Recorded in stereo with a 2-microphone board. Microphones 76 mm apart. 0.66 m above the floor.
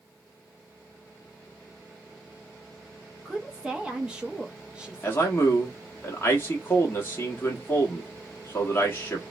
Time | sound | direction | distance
3.2 | a woman speaking | 10° right (ahead or behind) | 0.6 m
5.0 | a man speaking | 30° left (ahead or behind) | 1.0 m